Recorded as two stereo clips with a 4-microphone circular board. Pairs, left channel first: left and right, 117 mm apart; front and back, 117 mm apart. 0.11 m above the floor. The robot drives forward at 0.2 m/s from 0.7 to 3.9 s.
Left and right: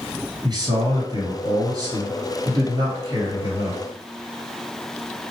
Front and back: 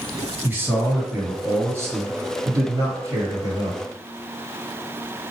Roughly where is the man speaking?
Behind right.